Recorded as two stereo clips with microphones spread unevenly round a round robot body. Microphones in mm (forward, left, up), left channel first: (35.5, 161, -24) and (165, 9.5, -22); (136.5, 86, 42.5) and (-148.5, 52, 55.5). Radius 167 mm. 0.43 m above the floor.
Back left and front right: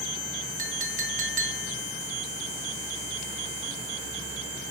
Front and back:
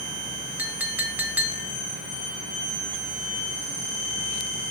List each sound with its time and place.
0.6 s a clink: 90° right, 0.9 m